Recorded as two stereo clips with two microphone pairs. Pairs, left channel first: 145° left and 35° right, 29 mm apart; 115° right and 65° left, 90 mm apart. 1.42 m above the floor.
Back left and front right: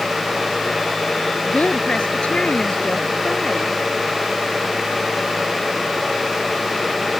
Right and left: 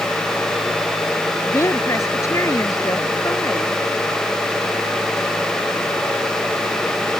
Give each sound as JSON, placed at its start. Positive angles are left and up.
{"t": 1.4, "sound": "a woman speaking", "azimuth_deg": -170}